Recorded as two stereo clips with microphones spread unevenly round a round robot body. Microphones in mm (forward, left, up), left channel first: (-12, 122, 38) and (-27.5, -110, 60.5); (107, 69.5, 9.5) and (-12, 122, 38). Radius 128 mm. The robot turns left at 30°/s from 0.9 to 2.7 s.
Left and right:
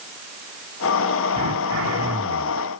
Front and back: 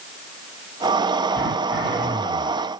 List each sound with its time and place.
1.3 s throat clearing: 105° right, 1.7 m; by 2.6 s 145° right, 1.7 m